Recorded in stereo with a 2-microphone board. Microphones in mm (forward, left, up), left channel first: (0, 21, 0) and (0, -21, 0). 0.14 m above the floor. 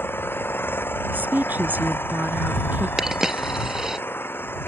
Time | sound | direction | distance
0.0 | an engine running | 65° left (ahead or behind) | ?
1.1 | a woman speaking | 50° right (ahead or behind) | ?
3.0 | a dropped coin | 15° right (ahead or behind) | ?